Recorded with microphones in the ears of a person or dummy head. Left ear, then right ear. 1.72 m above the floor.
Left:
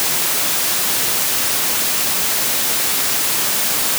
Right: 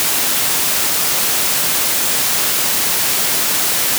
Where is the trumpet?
I don't hear a trumpet.